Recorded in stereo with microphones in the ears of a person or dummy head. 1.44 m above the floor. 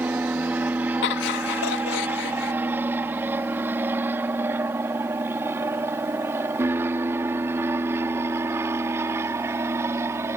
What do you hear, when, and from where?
0.0 s an aircraft: 10° right (ahead or behind); by 10.4 s 15° right (ahead or behind)
1.0 s laughter: 75° left (ahead or behind)